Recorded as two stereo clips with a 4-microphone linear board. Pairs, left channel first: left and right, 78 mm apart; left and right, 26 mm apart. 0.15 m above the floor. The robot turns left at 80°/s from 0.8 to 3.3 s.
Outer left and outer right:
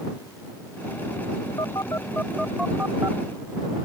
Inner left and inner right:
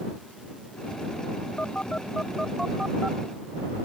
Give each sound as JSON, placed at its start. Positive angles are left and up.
{"t": 1.6, "sound": "a phone buzzing", "side_deg": 65}